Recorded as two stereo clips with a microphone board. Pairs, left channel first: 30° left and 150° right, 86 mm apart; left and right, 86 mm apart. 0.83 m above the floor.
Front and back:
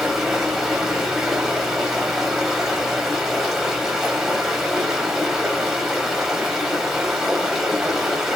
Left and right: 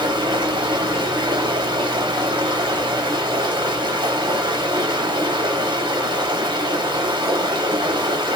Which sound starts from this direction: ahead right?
Running water, at 0.0 s.